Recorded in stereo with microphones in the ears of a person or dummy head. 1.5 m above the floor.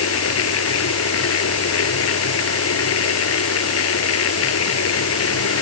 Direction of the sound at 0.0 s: 85° left.